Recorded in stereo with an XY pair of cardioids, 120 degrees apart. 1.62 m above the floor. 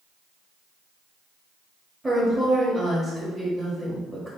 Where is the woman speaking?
10° right, 1.4 m.